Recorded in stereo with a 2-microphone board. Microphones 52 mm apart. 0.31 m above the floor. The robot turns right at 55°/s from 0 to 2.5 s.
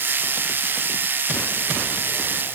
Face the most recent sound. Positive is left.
No sound to turn to.